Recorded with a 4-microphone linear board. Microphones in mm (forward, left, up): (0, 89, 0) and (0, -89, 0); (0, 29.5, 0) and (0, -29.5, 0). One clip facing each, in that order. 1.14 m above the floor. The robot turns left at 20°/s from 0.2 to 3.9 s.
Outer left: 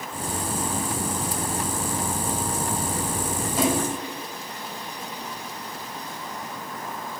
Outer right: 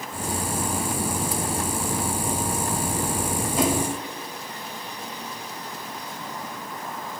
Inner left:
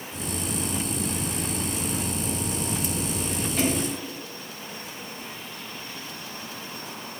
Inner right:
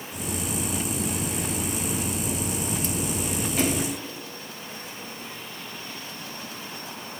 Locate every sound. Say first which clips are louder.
3.6 s a splash: even, even; centre (ahead or behind), 5 m; by 3.9 s 5° left (ahead or behind), 5 m